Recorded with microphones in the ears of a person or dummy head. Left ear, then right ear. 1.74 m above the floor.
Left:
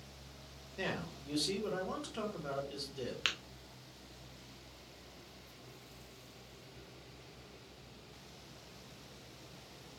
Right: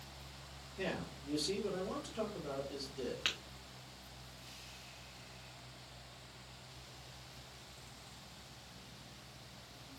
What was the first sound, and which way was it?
A man speaking, 75° left (ahead or behind).